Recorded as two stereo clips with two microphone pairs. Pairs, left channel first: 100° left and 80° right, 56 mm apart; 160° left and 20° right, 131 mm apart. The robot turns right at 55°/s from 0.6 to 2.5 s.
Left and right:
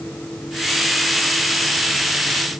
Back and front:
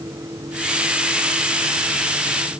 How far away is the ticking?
I don't hear ticking.